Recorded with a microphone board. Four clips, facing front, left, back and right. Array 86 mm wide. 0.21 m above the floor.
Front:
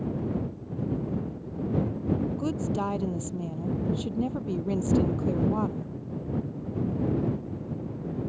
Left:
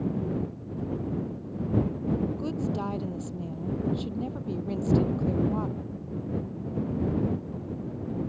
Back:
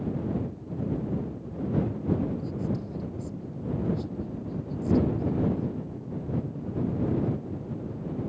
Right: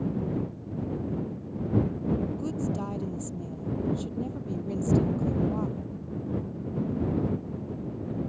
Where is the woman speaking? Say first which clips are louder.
Left 1 dB, front 4 dB; 15° left.